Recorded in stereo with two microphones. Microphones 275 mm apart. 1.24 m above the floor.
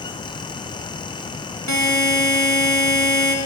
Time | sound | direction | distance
1.7 | a buzzer | 85° right | 0.7 m